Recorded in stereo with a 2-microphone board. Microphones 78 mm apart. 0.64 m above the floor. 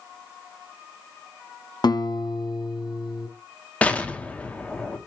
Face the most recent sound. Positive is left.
turn(degrees=20)  # may be behind; listen again after turning